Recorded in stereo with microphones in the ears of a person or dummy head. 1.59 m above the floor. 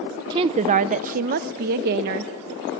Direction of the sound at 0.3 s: 20° right (ahead or behind).